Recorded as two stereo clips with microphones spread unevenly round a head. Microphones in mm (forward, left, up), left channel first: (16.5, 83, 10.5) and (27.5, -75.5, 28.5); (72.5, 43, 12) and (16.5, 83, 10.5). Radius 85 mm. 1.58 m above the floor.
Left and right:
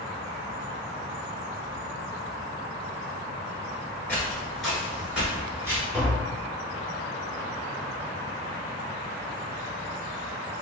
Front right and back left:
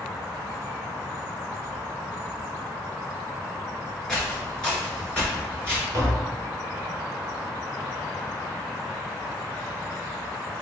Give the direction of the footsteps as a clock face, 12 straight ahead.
12 o'clock.